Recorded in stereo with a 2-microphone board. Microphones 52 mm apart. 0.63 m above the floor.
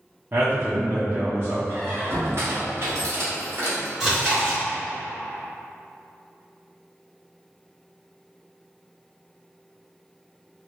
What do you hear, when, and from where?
0.3 s a man speaking: 50° right (ahead or behind), 0.8 m
1.7 s a squeak: 60° right (ahead or behind), 1.7 m
4.0 s chewing: 15° right (ahead or behind), 2.0 m